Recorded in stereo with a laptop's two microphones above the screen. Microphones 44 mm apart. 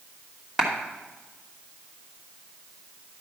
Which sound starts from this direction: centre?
A clap, at 0.6 s.